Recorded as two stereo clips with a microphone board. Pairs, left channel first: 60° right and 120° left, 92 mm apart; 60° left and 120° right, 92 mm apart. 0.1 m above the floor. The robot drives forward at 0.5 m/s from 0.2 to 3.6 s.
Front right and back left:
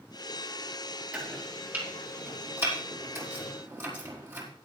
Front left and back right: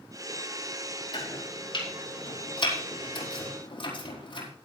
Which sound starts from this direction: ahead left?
Chopping, at 1.1 s.